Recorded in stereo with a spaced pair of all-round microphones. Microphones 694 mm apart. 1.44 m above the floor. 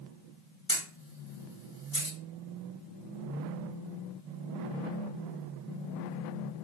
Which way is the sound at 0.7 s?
30° left (ahead or behind).